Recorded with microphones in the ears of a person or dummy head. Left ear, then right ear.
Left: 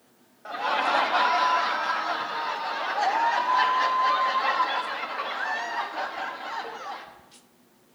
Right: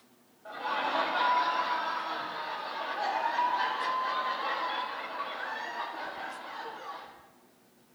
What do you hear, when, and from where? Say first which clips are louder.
0.5 s laughter: left 7 dB; 65° left (ahead or behind), 1.5 m